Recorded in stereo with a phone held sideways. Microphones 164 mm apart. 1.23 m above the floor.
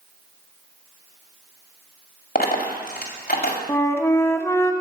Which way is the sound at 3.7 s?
15° left (ahead or behind).